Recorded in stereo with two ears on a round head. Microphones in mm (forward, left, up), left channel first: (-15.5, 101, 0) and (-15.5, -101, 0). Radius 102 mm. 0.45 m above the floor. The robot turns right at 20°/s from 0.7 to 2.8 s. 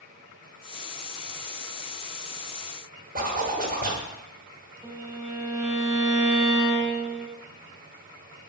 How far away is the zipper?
About 1.1 m.